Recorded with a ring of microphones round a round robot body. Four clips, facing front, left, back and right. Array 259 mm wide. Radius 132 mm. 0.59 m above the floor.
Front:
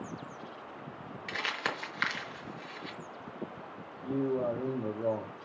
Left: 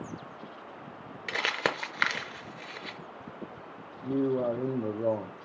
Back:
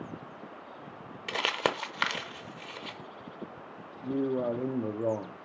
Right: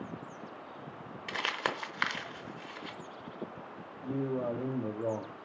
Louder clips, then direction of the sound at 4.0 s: Left 6 dB, back 1 dB; 130° left.